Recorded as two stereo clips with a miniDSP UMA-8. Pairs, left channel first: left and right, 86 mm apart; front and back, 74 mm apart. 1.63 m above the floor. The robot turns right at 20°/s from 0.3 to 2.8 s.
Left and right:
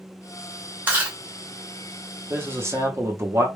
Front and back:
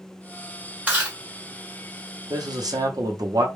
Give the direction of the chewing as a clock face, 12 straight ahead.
4 o'clock.